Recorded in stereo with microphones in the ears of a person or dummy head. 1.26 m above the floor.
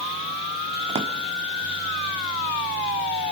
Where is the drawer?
25° right (ahead or behind), 1.2 m.